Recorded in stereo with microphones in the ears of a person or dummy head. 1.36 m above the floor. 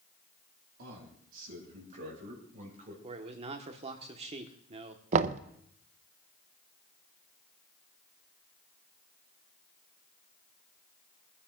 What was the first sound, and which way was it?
A man speaking, 55° right (ahead or behind).